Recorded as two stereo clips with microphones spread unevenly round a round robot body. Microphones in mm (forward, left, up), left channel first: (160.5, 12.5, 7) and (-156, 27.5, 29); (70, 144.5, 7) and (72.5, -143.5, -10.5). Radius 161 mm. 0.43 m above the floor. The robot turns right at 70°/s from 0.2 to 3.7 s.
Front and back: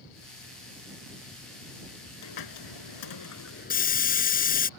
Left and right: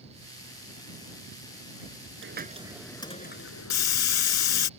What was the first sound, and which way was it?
A hiss, 40° right.